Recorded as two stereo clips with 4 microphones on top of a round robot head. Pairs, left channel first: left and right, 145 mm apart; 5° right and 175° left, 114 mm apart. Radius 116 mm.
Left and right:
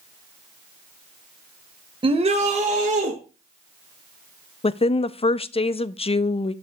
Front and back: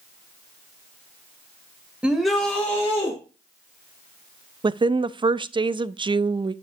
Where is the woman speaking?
135° left, 0.5 m.